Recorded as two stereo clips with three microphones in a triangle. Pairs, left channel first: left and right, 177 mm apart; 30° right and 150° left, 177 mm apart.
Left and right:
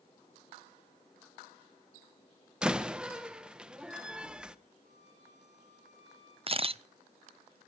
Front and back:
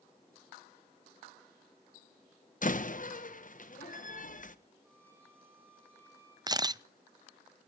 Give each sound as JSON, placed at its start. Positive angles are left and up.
{"t": 2.6, "sound": "a door slam", "azimuth_deg": -5, "distance_m": 1.0}
{"t": 4.8, "sound": "a violin", "azimuth_deg": -135, "distance_m": 8.5}
{"t": 6.5, "sound": "a camera shutter", "azimuth_deg": -140, "distance_m": 0.5}